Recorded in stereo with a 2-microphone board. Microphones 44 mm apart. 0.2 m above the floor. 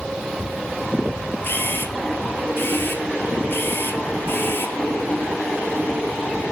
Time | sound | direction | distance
1.4 | a camera shutter | 55° left (ahead or behind) | 1.6 m